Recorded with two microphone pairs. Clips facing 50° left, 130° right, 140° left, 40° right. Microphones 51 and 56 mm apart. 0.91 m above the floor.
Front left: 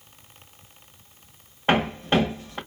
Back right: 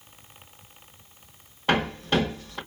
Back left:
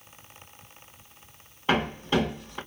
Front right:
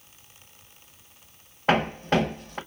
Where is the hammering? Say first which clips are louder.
Front left 2 dB, front right 3 dB; 10° right, 1.8 m.